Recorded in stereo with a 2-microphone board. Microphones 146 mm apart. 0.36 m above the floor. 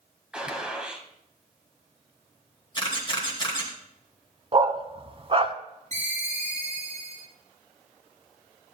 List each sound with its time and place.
0.3 s a gunshot: 5° right (ahead or behind), 1.5 m
2.8 s a camera shutter: 35° left (ahead or behind), 2.5 m
4.5 s a dog barking: 40° right (ahead or behind), 0.8 m
5.9 s a ringtone: 55° right (ahead or behind), 4.5 m